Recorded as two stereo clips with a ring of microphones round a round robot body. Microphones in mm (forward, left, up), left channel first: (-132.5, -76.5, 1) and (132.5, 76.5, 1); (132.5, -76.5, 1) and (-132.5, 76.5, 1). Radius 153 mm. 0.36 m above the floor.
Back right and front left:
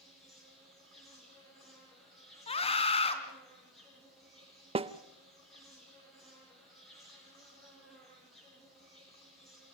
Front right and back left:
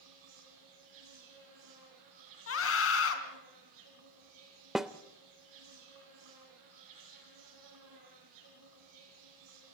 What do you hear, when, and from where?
0.0 s an insect: 120° left, 7 m
2.5 s a scream: 80° right, 3 m
4.8 s a snare drum: 65° left, 0.6 m